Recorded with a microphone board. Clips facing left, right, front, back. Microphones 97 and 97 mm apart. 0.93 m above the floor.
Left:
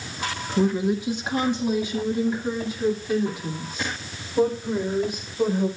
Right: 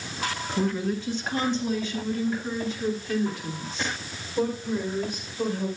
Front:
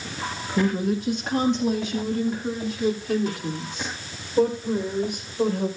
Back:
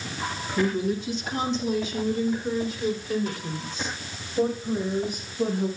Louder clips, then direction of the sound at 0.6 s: Left 5 dB, front 2 dB; 20° left.